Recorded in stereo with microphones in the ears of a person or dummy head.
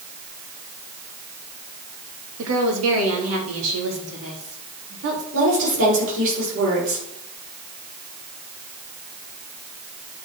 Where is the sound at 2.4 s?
80° right, 2.5 m; by 5.2 s 65° right (ahead or behind), 3.5 m.